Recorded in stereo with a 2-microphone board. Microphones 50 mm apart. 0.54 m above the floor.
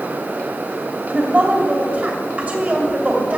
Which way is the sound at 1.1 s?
25° right (ahead or behind).